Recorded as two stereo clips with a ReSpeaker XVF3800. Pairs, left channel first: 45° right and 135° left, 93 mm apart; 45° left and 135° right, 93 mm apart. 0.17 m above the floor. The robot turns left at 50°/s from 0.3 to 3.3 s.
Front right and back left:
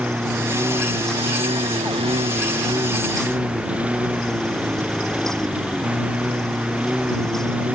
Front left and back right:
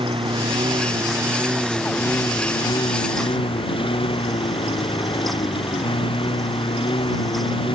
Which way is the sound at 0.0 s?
150° right.